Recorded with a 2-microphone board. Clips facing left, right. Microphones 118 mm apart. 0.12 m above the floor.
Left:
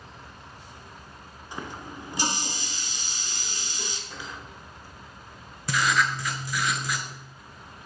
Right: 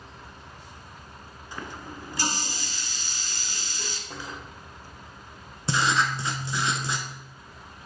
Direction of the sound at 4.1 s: 45° right (ahead or behind).